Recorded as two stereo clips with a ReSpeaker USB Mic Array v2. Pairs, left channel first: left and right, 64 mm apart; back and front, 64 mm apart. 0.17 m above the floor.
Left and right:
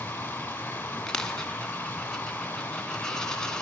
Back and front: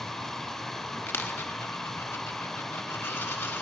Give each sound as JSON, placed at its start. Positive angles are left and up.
{"t": 0.0, "sound": "running water", "azimuth_deg": 105, "distance_m": 1.3}
{"t": 1.1, "sound": "a dropped coin", "azimuth_deg": 165, "distance_m": 0.7}